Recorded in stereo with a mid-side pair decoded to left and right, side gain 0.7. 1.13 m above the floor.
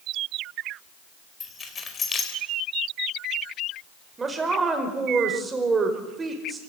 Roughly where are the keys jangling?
Ahead left.